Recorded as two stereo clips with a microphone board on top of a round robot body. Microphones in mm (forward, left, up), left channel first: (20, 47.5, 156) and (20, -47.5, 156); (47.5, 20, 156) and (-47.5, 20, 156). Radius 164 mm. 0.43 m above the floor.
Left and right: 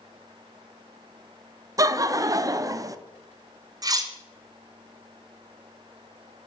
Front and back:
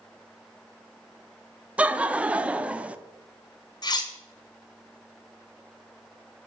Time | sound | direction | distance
1.8 | laughter | 110° right | 0.8 m
3.8 | cutlery clinking | 40° right | 1.2 m